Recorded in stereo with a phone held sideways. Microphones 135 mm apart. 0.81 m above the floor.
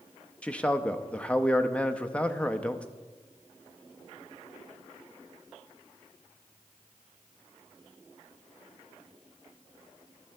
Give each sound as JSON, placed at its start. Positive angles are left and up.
{"t": 0.4, "sound": "a man speaking", "side_deg": 10, "distance_m": 0.6}